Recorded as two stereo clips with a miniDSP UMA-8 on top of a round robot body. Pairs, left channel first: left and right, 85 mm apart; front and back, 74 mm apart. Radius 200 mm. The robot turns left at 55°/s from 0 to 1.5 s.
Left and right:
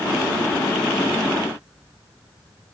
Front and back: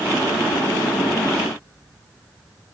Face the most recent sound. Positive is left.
No sound to turn to.